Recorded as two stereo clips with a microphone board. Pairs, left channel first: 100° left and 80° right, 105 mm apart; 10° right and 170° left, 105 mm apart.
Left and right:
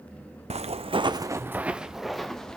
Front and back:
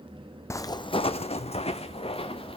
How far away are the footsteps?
About 0.6 m.